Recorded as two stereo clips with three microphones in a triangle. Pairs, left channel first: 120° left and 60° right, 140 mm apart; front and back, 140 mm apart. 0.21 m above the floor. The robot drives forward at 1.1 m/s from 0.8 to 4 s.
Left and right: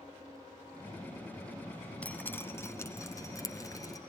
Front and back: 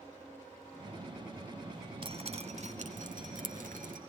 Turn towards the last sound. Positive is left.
turn(degrees=-175)